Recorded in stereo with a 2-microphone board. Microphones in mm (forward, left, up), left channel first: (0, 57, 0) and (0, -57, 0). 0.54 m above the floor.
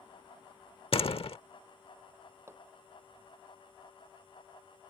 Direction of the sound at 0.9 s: 55° left (ahead or behind).